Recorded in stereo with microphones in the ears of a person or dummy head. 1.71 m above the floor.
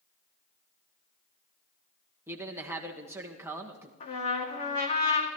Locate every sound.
2.3 s a man speaking: 15° right (ahead or behind), 1.6 m
4.0 s a trumpet: 40° left (ahead or behind), 2.5 m